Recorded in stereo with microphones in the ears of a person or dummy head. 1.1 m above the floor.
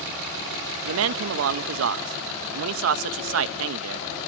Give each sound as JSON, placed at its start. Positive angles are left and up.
{"t": 0.8, "sound": "a man speaking", "side_deg": -75, "distance_m": 0.9}